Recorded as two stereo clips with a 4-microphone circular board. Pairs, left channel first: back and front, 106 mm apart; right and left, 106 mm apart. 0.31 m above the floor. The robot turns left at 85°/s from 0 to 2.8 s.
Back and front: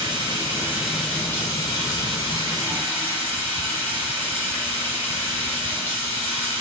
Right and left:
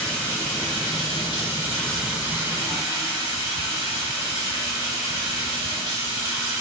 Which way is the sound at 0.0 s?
5° right.